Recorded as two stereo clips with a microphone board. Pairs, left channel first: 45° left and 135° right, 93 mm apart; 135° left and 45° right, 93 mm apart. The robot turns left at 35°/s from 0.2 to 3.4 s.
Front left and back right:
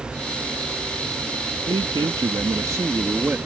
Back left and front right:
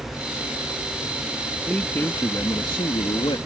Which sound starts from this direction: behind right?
A man speaking, at 1.7 s.